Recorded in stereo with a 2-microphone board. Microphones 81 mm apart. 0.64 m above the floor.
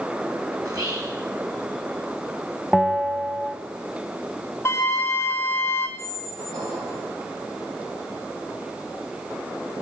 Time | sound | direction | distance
0.6 | whispering | 50° right (ahead or behind) | 6.5 m
2.7 | a bell | 5° right (ahead or behind) | 1.0 m
4.7 | a flute | 30° left (ahead or behind) | 2 m
6.0 | a squeak | 65° right (ahead or behind) | 3.5 m